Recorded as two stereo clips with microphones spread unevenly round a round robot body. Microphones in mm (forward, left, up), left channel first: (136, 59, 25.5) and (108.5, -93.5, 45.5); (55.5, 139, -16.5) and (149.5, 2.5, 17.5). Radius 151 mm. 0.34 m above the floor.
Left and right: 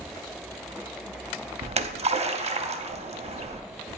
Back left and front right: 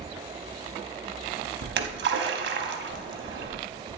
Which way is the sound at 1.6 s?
45° right.